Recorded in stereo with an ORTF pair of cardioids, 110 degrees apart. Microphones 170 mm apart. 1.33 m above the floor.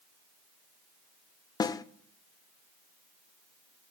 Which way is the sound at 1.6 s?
25° left.